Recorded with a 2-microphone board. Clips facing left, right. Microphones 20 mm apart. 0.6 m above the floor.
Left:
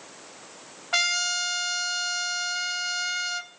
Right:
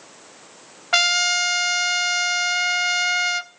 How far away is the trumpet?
About 0.9 m.